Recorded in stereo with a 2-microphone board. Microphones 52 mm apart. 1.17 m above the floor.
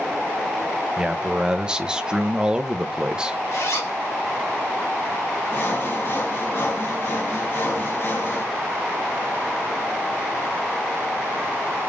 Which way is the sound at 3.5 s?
70° left (ahead or behind).